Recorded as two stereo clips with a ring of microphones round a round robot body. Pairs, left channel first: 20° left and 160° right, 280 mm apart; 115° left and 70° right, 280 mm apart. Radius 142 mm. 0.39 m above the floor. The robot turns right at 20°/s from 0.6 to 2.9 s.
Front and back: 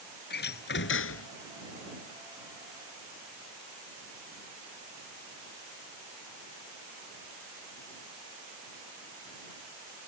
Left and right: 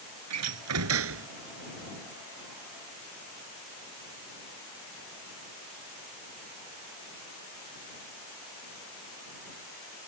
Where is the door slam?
35° right; by 1.3 s 20° right.